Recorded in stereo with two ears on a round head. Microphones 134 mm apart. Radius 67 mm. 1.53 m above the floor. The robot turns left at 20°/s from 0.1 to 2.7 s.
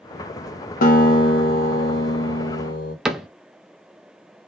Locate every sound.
0.8 s a guitar: 105° left, 1.0 m; by 3.0 s 70° left, 1.0 m
3.0 s a cupboard door: 5° right (ahead or behind), 0.6 m